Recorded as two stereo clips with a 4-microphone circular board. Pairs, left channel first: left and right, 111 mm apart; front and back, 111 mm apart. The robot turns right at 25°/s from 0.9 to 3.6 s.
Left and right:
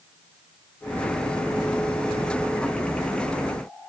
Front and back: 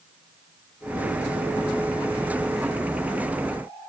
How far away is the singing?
I don't hear singing.